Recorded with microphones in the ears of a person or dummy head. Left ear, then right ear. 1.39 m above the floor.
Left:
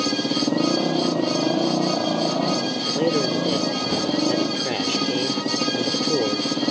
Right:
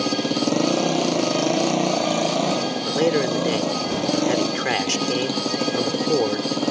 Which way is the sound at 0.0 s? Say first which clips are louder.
Even; 60° right (ahead or behind).